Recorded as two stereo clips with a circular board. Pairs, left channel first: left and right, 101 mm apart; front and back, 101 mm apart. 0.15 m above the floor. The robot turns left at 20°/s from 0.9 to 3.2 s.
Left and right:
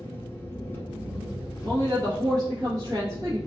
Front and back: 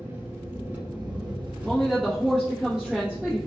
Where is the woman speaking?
80° right, 1.2 m; by 3.4 s 110° right, 1.2 m.